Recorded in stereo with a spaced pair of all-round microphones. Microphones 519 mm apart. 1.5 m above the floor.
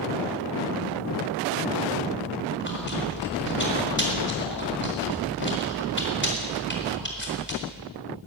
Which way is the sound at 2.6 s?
20° left (ahead or behind).